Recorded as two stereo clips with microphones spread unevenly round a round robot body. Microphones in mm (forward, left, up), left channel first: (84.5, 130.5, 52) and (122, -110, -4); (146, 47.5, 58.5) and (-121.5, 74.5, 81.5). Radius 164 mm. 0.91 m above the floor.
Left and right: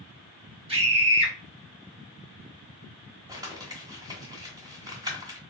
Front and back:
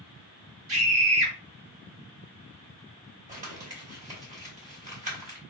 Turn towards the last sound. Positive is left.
turn(degrees=-165)